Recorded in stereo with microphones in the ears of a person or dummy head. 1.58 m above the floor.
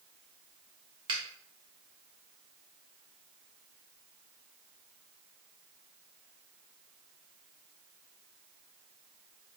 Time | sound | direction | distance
1.1 | a finger snap | 30° right (ahead or behind) | 0.8 m